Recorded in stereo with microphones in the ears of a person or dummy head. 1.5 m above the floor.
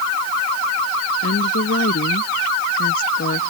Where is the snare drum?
No snare drum in this recording.